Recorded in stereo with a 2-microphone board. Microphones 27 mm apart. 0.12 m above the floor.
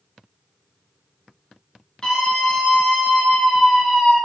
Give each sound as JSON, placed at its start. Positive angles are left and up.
{"t": 2.0, "sound": "a scream", "side_deg": 25, "distance_m": 1.5}